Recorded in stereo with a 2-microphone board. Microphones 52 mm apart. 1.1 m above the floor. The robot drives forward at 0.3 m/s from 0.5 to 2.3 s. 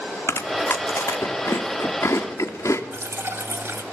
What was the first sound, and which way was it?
Chewing, 70° left (ahead or behind).